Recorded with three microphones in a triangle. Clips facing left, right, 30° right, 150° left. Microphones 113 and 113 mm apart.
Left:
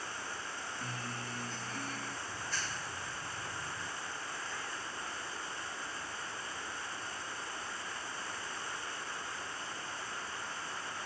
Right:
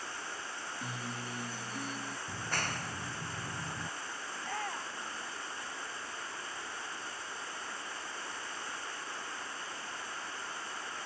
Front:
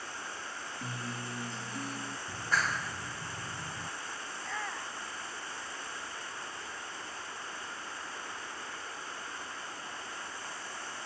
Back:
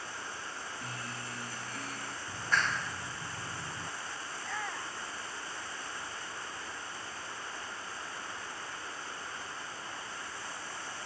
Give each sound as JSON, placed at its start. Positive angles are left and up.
{"t": 0.8, "sound": "a guitar", "azimuth_deg": -35}
{"t": 2.3, "sound": "a clap", "azimuth_deg": -115}
{"t": 4.3, "sound": "a shout", "azimuth_deg": -120}